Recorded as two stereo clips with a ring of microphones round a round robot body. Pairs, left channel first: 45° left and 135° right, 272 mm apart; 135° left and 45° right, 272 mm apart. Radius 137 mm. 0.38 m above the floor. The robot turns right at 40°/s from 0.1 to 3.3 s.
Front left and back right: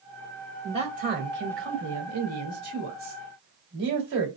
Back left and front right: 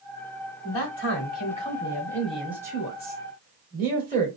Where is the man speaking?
155° left, 2 m; by 4.3 s 95° right, 2 m.